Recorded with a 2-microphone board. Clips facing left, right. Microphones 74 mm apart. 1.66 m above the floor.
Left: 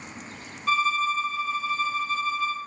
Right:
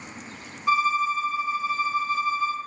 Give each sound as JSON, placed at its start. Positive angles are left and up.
{"t": 0.7, "sound": "a violin", "side_deg": -15, "distance_m": 0.6}